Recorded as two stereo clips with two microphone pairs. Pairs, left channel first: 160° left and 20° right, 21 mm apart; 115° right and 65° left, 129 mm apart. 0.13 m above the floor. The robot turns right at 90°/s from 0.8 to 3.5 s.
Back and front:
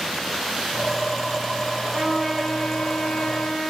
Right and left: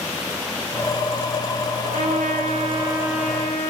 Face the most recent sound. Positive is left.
turn(degrees=180)